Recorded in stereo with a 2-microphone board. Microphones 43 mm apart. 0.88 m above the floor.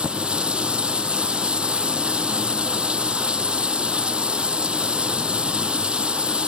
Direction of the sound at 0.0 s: 25° right (ahead or behind).